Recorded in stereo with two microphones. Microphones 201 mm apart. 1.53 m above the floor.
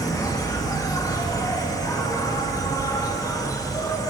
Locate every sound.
0.0 s an insect: 15° left (ahead or behind), 0.9 m